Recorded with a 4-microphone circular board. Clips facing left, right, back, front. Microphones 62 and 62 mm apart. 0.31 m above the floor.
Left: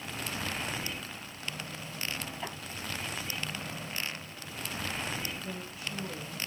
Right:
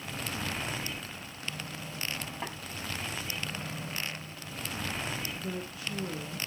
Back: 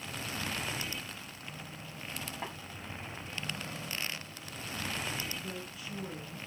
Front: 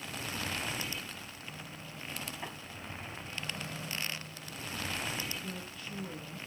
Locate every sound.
2.4 s tapping: 135° right, 7.5 m
5.3 s a woman speaking: 100° right, 5 m